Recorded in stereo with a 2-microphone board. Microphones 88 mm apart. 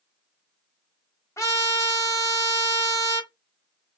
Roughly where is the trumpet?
Left.